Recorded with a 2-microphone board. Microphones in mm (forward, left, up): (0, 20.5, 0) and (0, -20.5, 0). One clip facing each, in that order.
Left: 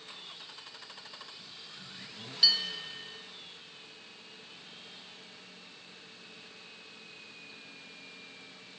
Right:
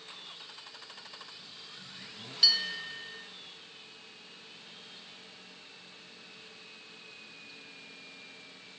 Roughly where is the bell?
Centre.